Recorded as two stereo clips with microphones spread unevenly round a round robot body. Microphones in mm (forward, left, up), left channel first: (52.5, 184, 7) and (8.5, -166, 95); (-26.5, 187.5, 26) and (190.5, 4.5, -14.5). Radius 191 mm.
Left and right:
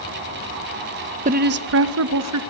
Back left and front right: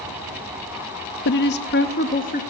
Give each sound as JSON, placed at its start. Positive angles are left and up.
{"t": 1.2, "sound": "a woman speaking", "azimuth_deg": -175, "distance_m": 0.7}